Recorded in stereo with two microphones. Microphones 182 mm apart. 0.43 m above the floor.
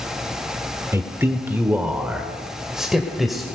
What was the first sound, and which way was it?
A man speaking, 15° right (ahead or behind).